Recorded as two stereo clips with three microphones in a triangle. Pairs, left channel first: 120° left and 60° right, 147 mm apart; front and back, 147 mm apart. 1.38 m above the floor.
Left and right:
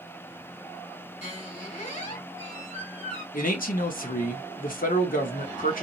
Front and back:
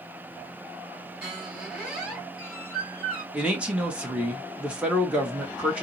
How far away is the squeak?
About 2.5 m.